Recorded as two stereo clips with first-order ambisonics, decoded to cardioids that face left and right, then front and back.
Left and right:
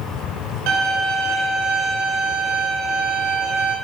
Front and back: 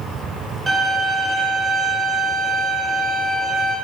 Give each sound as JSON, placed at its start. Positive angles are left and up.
{"t": 0.7, "sound": "a violin", "azimuth_deg": -120, "distance_m": 5.0}